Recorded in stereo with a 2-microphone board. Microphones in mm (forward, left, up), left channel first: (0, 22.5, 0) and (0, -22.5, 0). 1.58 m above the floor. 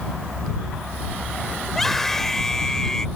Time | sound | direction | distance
1.7 | a scream | 5° left (ahead or behind) | ?